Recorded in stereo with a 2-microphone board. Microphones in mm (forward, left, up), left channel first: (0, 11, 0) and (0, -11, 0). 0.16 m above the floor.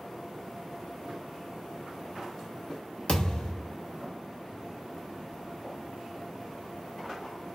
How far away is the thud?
About 1.0 m.